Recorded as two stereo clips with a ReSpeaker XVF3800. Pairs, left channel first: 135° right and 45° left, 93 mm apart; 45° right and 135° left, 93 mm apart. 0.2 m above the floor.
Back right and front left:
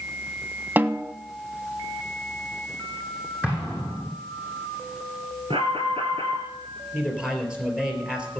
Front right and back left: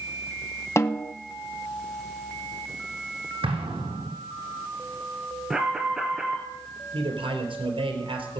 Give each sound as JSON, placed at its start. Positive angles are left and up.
{"t": 0.8, "sound": "a snare drum", "azimuth_deg": -10, "distance_m": 0.5}
{"t": 3.4, "sound": "an explosion", "azimuth_deg": 120, "distance_m": 3.5}
{"t": 5.5, "sound": "an alarm", "azimuth_deg": 50, "distance_m": 2.0}
{"t": 6.9, "sound": "a man speaking", "azimuth_deg": 125, "distance_m": 3.5}